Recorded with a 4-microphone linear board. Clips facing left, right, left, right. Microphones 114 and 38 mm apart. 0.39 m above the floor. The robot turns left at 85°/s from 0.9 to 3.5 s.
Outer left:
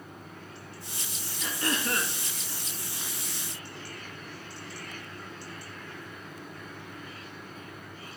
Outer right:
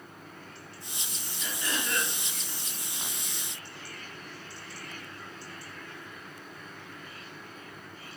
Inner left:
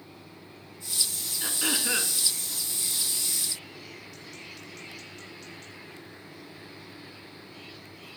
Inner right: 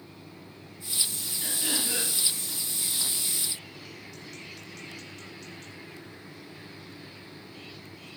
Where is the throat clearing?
105° left, 1.3 m; by 2.1 s 40° left, 1.3 m.